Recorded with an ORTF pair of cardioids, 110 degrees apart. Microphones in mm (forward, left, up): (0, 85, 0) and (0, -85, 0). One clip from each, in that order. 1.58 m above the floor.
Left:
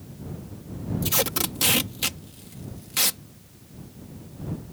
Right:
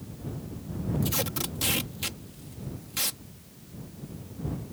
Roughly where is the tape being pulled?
Ahead left.